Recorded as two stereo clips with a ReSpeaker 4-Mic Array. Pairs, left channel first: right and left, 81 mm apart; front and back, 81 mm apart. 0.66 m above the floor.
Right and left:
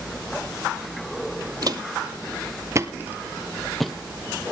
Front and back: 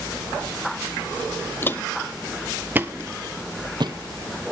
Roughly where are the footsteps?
Ahead left.